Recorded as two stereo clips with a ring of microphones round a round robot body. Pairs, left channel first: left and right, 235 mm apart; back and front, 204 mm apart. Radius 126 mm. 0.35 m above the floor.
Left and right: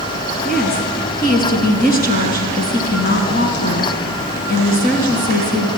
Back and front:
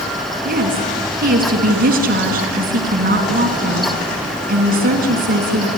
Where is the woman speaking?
40° left, 4 m.